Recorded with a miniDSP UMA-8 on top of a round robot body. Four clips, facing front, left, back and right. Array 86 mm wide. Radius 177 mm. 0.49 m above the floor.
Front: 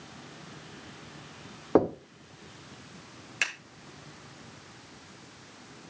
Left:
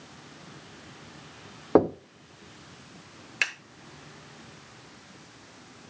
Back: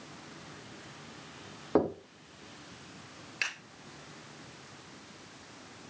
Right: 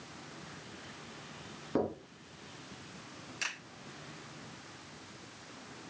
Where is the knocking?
75° left, 1.2 m.